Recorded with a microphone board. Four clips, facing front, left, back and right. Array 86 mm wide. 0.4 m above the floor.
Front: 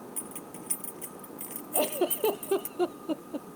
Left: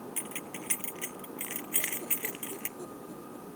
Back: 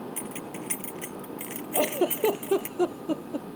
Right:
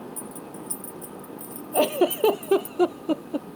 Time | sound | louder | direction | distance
0.2 | keys jangling | right 4 dB, back 6 dB | 120° left | ?
1.7 | a giggle | right 25 dB, back 3 dB | 95° right | ?